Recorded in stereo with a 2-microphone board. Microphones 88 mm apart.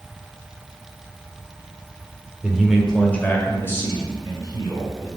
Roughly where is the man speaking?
Centre.